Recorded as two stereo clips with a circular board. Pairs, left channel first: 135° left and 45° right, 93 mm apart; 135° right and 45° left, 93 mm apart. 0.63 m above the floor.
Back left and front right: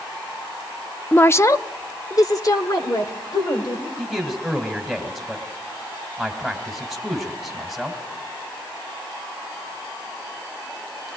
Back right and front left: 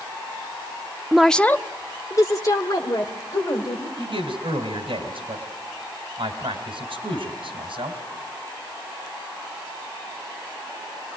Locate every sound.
1.1 s a woman speaking: 105° left, 0.5 m; by 3.9 s straight behind, 3 m
4.0 s a man speaking: 45° left, 3 m